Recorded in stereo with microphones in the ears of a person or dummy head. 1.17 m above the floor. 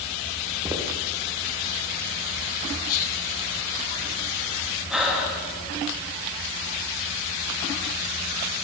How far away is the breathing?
About 2 m.